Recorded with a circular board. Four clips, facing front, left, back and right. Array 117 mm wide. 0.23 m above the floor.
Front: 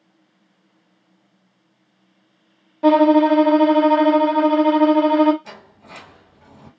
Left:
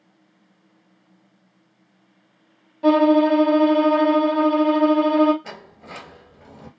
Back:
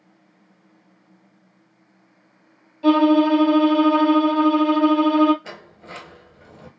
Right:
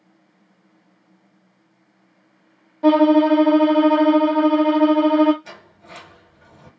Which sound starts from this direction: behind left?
A sliding door, at 5.4 s.